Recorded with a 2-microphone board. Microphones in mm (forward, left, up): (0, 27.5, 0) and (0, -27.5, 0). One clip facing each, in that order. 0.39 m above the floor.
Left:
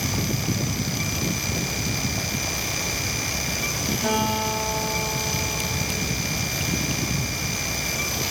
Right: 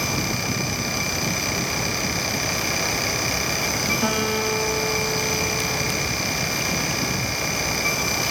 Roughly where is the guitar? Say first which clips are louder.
Left 2 dB; right.